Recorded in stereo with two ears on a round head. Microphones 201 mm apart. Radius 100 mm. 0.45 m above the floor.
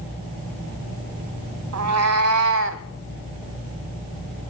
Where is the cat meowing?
80° right, 1.8 m; by 2.8 s 55° right (ahead or behind), 1.6 m.